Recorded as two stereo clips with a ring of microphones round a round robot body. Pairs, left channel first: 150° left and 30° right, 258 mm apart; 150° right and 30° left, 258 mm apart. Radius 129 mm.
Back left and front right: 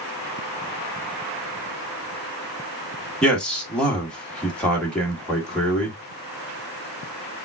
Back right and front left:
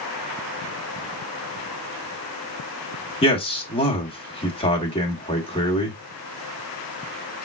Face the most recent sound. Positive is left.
turn(degrees=-130)